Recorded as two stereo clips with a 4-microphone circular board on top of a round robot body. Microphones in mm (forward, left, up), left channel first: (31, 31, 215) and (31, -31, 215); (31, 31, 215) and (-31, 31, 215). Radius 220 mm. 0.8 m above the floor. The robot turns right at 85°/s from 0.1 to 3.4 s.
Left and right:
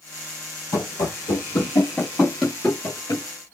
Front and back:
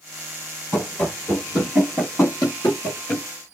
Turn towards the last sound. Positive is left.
turn(degrees=90)